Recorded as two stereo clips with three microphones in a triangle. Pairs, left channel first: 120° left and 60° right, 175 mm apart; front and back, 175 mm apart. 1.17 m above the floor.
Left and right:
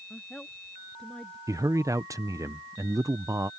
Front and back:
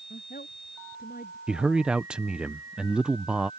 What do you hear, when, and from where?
0.1 s a woman speaking: 35° left
1.5 s a man speaking: 100° right